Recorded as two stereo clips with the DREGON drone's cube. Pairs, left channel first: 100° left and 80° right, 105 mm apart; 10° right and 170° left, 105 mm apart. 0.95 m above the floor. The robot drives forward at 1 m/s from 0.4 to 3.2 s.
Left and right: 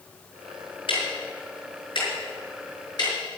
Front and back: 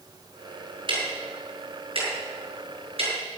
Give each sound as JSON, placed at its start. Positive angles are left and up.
{"t": 0.9, "sound": "ticking", "azimuth_deg": 130, "distance_m": 5.5}